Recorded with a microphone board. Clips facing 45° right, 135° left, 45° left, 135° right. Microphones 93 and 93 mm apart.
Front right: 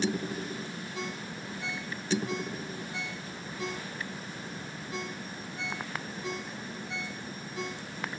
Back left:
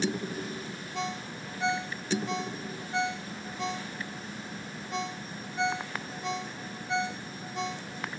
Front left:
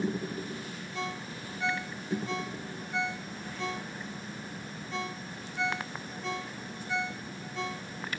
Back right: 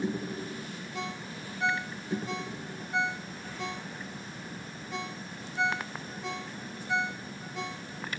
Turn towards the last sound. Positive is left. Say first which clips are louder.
# back left 5 dB, front left 1 dB
turn(degrees=150)